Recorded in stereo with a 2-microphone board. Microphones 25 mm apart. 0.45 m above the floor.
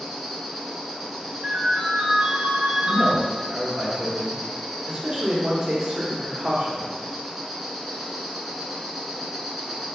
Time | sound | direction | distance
0.0 | an insect | 10° right (ahead or behind) | 1.3 m
1.4 | a ringtone | 55° right (ahead or behind) | 1.0 m
2.8 | a man speaking | 35° right (ahead or behind) | 1.3 m